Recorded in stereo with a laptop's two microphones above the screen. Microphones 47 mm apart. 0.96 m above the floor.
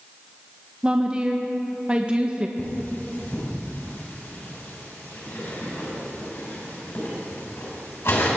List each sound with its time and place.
0.8 s a woman speaking: 20° right (ahead or behind), 0.6 m
2.6 s cutlery clinking: 70° left (ahead or behind), 3.5 m